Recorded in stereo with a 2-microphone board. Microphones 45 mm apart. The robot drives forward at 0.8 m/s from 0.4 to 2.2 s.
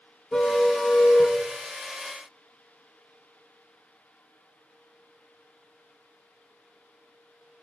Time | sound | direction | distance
0.3 | a car horn | 25° left (ahead or behind) | 4.5 m